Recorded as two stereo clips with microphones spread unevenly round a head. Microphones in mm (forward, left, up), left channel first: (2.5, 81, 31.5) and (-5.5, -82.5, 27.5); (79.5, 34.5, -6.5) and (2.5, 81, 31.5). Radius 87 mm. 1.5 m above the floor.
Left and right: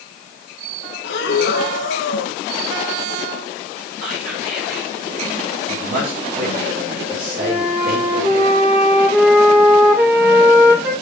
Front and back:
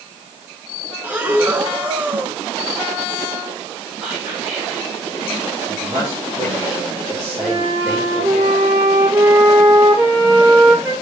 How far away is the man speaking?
About 4.5 m.